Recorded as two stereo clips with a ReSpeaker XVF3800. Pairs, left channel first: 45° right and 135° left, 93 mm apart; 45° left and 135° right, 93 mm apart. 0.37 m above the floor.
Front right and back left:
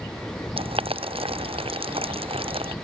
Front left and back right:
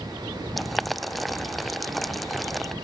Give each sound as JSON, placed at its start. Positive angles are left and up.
{"t": 0.6, "sound": "boiling", "azimuth_deg": 135}